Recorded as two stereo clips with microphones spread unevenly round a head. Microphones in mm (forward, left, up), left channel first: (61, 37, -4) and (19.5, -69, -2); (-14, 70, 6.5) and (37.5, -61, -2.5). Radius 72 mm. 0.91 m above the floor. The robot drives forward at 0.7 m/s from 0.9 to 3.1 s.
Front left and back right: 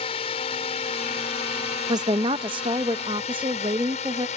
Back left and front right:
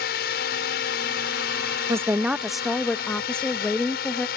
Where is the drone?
120° left; by 4.4 s 105° left.